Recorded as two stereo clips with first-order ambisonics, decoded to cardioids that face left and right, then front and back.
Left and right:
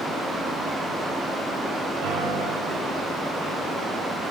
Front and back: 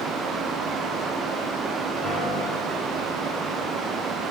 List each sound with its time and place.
2.0 s a piano: 80° right, 8 m